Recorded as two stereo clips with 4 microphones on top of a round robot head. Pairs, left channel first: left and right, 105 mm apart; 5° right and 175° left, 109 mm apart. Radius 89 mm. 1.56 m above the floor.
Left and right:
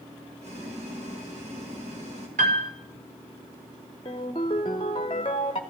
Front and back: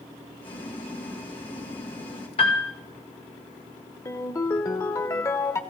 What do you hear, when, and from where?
0.4 s boiling: 60° right, 3 m
2.4 s a piano: 60° right, 1.6 m
4.0 s a ringtone: 45° left, 0.8 m